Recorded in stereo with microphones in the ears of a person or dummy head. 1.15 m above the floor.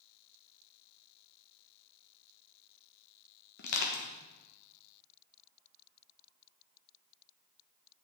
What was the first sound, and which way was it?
Crushing, 55° left (ahead or behind).